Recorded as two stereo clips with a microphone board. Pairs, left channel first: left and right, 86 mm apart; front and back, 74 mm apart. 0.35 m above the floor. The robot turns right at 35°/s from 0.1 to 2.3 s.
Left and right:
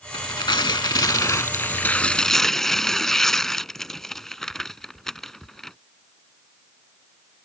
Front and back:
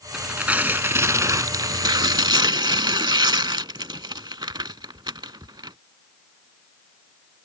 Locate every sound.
0.1 s tearing paper: 100° left; by 5.8 s 175° left